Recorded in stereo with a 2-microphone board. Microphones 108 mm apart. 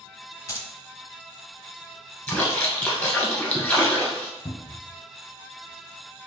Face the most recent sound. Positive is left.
turn(degrees=60)  # may be behind; listen again after turning